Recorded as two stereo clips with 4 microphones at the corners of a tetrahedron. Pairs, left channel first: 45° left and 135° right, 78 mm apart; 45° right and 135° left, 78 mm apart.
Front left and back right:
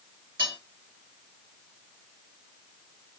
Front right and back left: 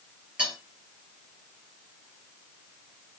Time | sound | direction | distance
0.4 | cutlery clinking | 150° right | 2.5 m